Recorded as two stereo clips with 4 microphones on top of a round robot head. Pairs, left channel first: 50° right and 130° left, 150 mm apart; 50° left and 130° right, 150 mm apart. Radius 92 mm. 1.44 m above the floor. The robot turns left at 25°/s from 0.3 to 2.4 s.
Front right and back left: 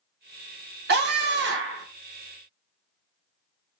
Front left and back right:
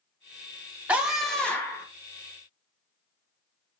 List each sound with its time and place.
0.9 s a scream: 150° left, 1.1 m; by 1.9 s 125° left, 1.1 m